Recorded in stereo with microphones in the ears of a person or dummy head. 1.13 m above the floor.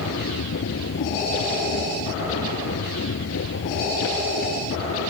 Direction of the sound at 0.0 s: 70° left (ahead or behind).